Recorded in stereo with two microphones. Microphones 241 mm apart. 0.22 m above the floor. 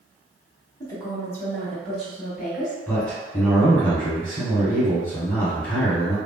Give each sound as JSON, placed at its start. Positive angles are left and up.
{"t": 0.8, "sound": "a woman speaking", "side_deg": 15, "distance_m": 1.1}
{"t": 2.9, "sound": "a man speaking", "side_deg": 5, "distance_m": 1.8}